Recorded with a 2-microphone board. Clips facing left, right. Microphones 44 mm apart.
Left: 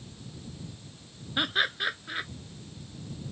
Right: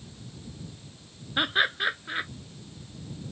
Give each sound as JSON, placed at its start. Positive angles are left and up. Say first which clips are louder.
{"t": 1.4, "sound": "laughter", "louder": "right 3 dB", "side_deg": -15}